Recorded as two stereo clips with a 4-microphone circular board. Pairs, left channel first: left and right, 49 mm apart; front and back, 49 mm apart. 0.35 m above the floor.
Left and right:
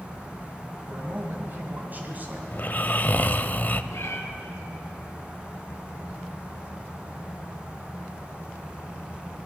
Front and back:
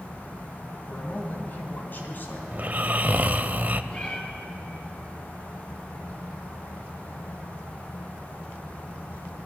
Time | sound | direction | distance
0.9 | a man speaking | 50° right | 2.5 m
2.5 | snoring | 130° left | 0.6 m
3.9 | a cat meowing | 70° left | 2.5 m